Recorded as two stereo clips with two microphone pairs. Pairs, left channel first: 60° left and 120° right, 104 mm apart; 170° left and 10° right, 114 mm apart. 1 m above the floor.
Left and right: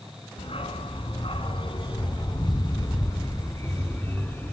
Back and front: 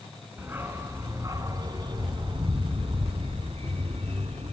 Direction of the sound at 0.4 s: 60° left.